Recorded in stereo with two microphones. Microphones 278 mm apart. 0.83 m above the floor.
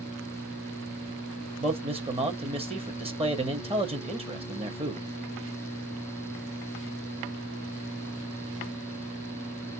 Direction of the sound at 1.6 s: 20° right (ahead or behind).